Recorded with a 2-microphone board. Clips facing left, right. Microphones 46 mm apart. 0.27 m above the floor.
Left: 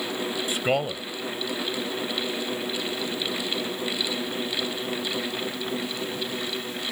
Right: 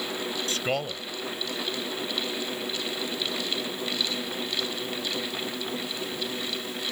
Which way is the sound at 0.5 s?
20° left (ahead or behind).